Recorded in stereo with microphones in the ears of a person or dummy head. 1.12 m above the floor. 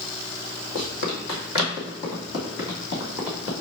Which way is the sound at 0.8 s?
45° left (ahead or behind).